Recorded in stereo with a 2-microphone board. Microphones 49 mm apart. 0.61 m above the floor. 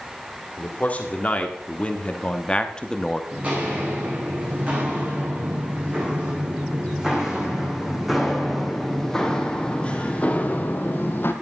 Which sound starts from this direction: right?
Footsteps, at 3.3 s.